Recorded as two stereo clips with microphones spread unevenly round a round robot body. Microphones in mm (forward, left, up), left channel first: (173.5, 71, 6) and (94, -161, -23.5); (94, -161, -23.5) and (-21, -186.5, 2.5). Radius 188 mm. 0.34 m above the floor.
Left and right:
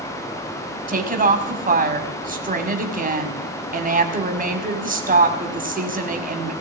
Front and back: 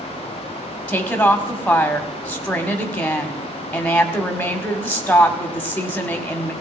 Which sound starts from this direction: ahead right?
A woman speaking, at 0.9 s.